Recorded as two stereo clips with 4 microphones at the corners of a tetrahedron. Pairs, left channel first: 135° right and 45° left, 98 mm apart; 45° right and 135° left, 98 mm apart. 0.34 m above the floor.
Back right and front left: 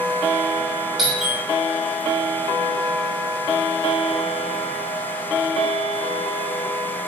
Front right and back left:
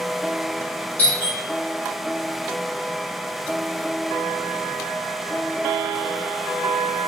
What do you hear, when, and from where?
1.0 s a doorbell: 30° right, 1.5 m